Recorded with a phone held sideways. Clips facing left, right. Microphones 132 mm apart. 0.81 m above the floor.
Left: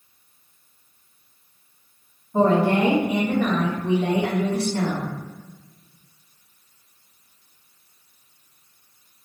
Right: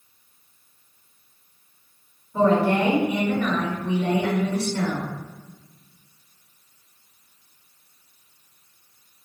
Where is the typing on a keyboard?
I don't hear typing on a keyboard.